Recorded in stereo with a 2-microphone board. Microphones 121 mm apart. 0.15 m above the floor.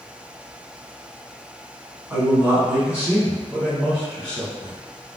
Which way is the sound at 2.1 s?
20° right (ahead or behind).